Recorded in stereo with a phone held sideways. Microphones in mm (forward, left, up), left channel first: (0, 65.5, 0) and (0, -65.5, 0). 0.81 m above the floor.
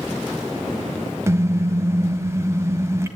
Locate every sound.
1.3 s a car horn: 20° right (ahead or behind), 3 m